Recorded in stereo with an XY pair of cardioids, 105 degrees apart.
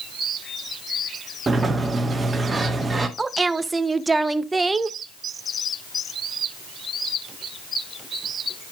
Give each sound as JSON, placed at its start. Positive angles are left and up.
{"t": 1.5, "sound": "a sliding door", "azimuth_deg": -25, "distance_m": 1.7}
{"t": 3.2, "sound": "a woman speaking", "azimuth_deg": -20, "distance_m": 0.8}